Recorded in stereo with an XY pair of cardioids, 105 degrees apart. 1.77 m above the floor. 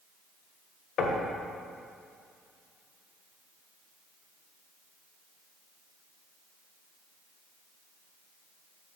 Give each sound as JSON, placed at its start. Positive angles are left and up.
{"t": 1.0, "sound": "knocking", "azimuth_deg": 60, "distance_m": 1.4}